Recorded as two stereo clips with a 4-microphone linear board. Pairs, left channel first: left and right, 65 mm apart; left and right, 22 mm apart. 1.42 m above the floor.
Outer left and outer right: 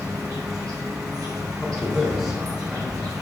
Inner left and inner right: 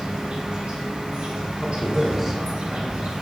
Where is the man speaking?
5° right (ahead or behind), 0.9 m.